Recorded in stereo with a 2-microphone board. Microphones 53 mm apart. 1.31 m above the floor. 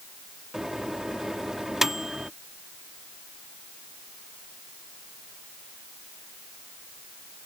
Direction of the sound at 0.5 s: 10° right (ahead or behind).